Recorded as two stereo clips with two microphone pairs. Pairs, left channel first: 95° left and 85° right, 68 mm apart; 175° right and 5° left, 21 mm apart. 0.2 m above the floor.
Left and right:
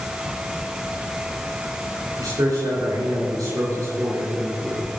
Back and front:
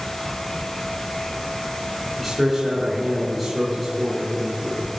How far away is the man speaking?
About 4 m.